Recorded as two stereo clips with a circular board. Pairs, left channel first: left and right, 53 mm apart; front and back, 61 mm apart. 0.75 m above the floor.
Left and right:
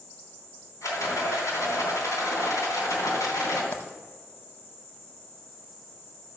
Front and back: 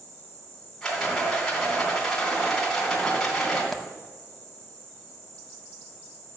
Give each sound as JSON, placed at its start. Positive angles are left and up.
{"t": 0.8, "sound": "a rattle", "azimuth_deg": 85, "distance_m": 3.5}
{"t": 3.7, "sound": "a dropped coin", "azimuth_deg": 85, "distance_m": 0.8}